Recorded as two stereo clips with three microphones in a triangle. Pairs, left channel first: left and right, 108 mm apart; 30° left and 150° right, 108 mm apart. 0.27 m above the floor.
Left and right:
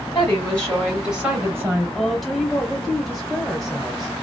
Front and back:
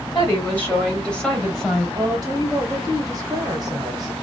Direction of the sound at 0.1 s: 60° left.